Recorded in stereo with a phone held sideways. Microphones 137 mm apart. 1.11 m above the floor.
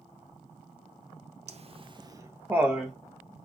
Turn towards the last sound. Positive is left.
turn(degrees=0)  # may be behind; listen again after turning